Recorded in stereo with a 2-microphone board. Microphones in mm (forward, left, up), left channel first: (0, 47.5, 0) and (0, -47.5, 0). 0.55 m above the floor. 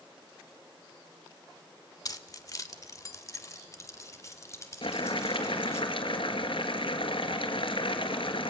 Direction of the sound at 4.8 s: 65° left (ahead or behind).